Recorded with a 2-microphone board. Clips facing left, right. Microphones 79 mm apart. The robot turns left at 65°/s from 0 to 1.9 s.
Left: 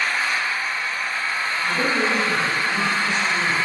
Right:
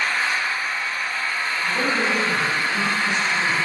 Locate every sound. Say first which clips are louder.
0.0 s an engine running: even; 125° right, 1.0 m; by 3.7 s 115° left, 1.0 m
1.6 s a man speaking: left 1 dB; 25° right (ahead or behind), 1.6 m